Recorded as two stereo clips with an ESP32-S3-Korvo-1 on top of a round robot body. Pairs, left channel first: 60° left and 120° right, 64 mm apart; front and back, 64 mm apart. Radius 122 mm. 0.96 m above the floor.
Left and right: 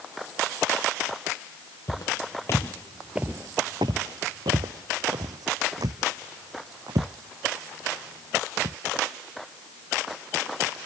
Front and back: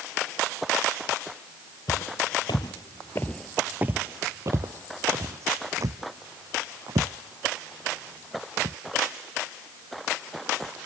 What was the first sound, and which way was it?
Footsteps, 15° left.